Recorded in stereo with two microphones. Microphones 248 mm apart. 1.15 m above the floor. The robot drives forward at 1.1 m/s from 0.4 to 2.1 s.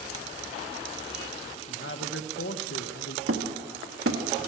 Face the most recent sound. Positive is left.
turn(degrees=-60)  # may be behind; listen again after turning